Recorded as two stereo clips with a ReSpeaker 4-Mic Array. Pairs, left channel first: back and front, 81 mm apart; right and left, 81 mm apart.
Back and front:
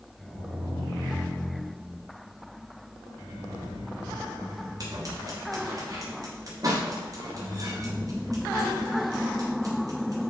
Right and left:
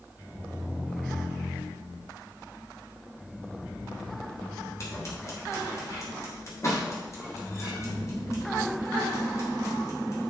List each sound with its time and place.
4.8 s scissors: 40° right, 3.5 m